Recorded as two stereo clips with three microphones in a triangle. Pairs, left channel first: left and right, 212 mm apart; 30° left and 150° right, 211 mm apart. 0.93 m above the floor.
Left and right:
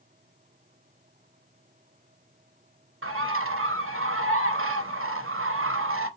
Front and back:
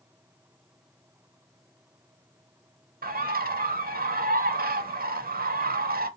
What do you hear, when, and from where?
3.0 s a bird: 100° right, 0.5 m